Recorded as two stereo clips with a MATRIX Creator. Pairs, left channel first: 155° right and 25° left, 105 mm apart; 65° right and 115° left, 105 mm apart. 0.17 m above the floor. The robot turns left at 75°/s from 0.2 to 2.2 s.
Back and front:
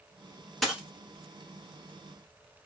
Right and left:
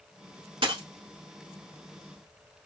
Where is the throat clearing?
I don't hear throat clearing.